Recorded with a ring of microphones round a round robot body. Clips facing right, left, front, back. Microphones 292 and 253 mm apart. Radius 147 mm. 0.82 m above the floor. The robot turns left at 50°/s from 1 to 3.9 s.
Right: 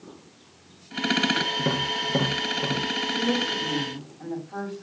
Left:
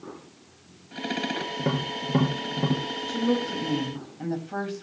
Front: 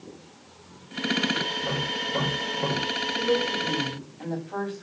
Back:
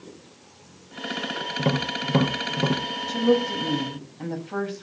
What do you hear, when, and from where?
1.6 s tapping: 170° right, 4.5 m; by 2.8 s 125° left, 4.5 m
3.1 s a woman speaking: 170° left, 4.5 m; by 4.8 s 130° left, 4.5 m